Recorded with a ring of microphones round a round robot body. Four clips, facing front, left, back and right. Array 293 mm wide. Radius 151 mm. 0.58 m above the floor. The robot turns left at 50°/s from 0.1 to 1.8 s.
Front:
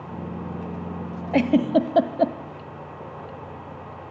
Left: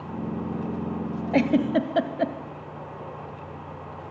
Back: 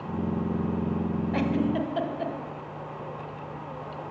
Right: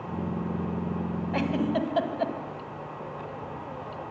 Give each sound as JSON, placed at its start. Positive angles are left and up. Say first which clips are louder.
{"t": 1.3, "sound": "a giggle", "louder": "left 6 dB, front 9 dB", "azimuth_deg": 45, "distance_m": 1.4}